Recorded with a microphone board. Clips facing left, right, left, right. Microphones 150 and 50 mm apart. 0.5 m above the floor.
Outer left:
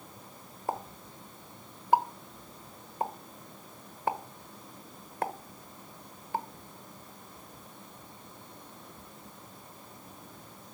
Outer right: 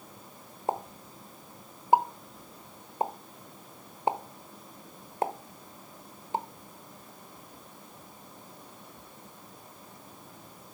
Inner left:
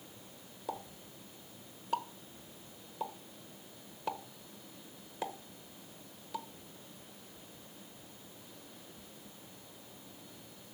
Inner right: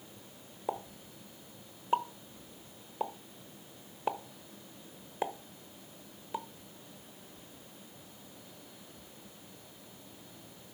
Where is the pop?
20° right (ahead or behind), 1.1 m.